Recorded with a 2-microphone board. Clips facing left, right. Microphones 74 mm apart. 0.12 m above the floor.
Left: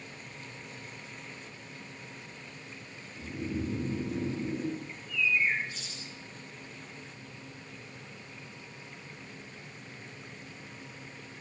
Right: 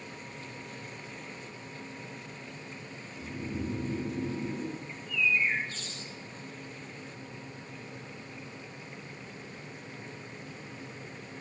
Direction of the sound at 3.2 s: 25° left (ahead or behind).